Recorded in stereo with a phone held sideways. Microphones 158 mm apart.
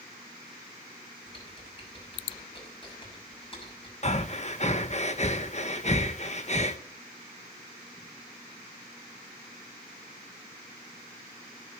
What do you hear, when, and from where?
1.3 s typing on a keyboard: 30° left (ahead or behind), 6.5 m
4.0 s breathing: 45° left (ahead or behind), 1.1 m